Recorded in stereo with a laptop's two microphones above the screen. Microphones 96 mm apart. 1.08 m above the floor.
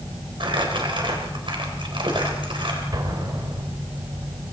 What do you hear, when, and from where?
0.4 s crumpling: 60° right (ahead or behind), 4 m
2.9 s an explosion: 45° right (ahead or behind), 3 m